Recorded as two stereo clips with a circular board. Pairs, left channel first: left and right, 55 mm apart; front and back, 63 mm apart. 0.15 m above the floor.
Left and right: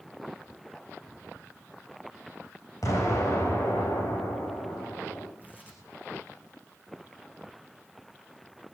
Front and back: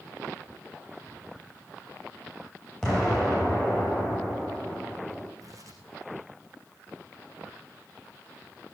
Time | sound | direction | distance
2.8 | an explosion | 85° left | 8 m
5.4 | tearing paper | 150° left | 5.5 m